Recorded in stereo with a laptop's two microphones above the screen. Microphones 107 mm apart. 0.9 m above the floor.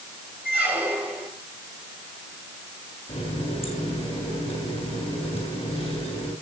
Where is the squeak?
15° right (ahead or behind), 6 m.